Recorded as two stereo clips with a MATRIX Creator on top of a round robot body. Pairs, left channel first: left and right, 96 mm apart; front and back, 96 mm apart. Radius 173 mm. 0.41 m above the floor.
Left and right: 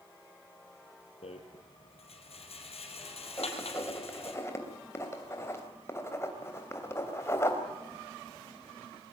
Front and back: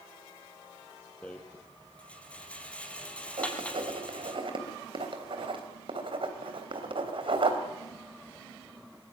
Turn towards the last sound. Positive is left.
turn(degrees=150)